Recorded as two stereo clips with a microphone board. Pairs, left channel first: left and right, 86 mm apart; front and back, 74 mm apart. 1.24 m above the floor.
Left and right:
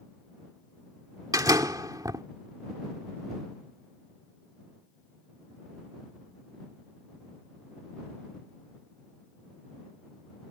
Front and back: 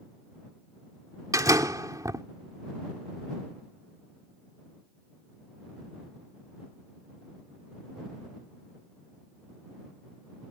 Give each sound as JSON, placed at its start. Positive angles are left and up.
{"t": 1.3, "sound": "a door slam", "azimuth_deg": -135}